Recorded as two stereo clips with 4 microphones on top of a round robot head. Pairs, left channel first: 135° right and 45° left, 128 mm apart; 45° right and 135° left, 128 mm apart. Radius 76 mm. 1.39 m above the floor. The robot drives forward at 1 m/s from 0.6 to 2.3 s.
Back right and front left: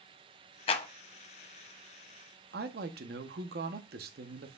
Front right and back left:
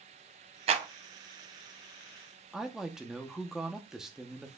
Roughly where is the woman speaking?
Ahead left.